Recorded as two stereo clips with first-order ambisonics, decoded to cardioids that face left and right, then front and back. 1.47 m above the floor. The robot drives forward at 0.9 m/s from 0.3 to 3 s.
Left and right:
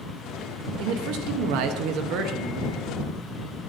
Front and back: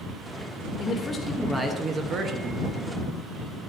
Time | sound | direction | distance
0.8 | a man speaking | 65° right | 1.2 m